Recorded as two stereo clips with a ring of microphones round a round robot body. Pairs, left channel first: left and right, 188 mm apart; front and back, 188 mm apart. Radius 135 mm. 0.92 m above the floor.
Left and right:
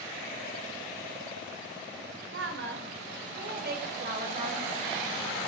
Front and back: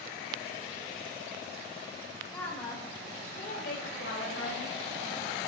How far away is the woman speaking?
About 4 m.